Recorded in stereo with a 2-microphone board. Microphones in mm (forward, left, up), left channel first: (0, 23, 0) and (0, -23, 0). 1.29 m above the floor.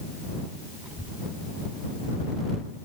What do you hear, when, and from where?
0.8 s a child speaking: 20° right (ahead or behind); by 2.8 s 25° right (ahead or behind)